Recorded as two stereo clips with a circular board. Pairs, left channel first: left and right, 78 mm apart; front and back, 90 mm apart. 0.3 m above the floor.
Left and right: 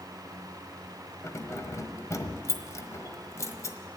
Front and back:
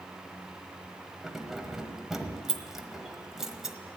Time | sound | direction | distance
1.2 | keys jangling | 95° left | 1.2 m